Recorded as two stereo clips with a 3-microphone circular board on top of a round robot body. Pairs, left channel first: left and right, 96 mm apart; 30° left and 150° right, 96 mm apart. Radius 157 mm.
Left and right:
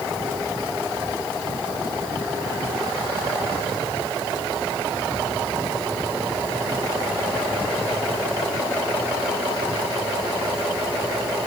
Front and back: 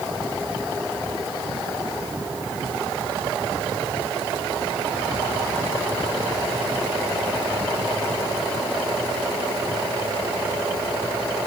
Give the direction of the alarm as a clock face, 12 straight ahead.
No alarm in this recording.